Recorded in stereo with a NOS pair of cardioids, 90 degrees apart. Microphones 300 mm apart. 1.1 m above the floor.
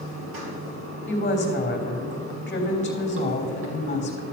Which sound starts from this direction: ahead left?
A woman speaking, at 1.1 s.